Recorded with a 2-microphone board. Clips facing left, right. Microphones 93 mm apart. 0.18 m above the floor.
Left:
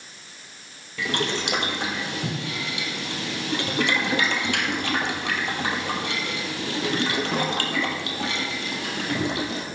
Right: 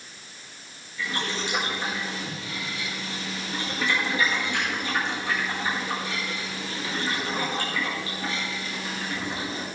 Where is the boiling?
80° left, 1.4 m.